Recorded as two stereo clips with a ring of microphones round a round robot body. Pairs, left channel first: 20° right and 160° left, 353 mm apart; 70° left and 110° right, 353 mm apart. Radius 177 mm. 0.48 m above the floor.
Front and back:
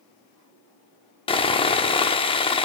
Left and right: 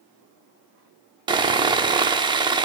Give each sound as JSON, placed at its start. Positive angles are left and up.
{"t": 1.3, "sound": "sawing", "azimuth_deg": -65, "distance_m": 0.7}